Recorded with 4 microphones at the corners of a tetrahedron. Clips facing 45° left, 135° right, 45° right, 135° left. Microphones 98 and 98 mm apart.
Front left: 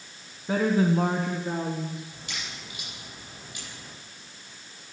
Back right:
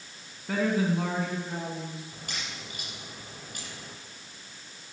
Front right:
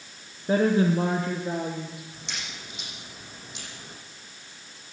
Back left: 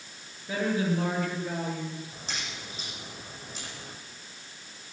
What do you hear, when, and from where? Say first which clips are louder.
0.5 s a woman speaking: front left 3 dB, front right 7 dB; 25° right, 2 m; by 2.0 s 35° left, 3 m
2.1 s a crack: even, back left 1 dB; 175° right, 8.5 m